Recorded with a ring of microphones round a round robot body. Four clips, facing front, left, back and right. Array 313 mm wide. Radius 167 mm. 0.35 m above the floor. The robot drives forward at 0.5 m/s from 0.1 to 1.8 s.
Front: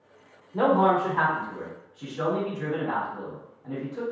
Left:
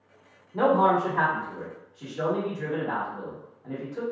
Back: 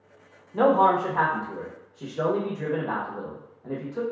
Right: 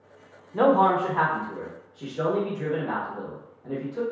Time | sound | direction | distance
0.5 | a man speaking | 115° right | 0.9 m